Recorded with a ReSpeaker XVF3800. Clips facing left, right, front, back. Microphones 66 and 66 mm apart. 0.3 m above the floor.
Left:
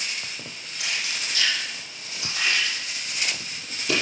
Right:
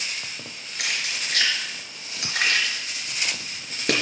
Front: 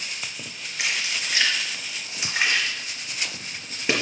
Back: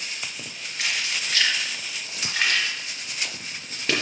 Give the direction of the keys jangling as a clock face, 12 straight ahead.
2 o'clock.